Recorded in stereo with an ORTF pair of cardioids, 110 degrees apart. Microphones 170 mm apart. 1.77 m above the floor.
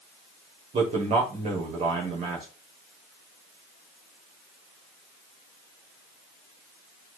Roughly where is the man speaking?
Ahead right.